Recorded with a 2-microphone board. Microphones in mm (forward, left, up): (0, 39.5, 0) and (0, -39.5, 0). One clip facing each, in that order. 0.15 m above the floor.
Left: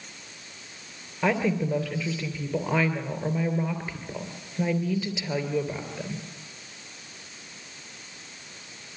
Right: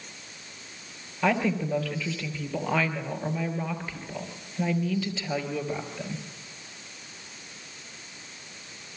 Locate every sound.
1.2 s a woman speaking: 15° left (ahead or behind), 3 m